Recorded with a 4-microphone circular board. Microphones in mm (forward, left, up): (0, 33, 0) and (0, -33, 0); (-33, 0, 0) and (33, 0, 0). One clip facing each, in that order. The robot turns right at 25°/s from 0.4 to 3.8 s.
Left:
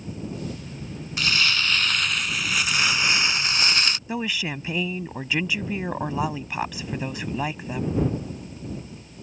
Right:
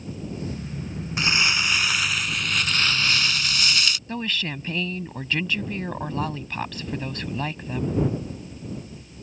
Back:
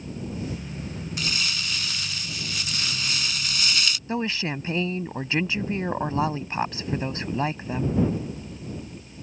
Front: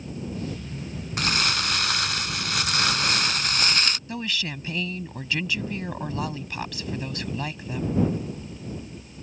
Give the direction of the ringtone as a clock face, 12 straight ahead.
No ringtone in this recording.